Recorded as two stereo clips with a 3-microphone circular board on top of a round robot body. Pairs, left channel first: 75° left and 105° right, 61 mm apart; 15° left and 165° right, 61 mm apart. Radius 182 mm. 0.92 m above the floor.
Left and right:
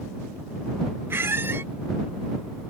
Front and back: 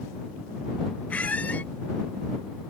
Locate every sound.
1.1 s a squeak: 55° right